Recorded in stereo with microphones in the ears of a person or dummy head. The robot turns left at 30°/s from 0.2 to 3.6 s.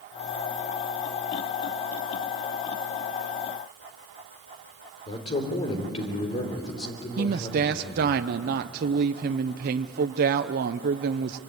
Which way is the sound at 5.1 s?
30° left (ahead or behind).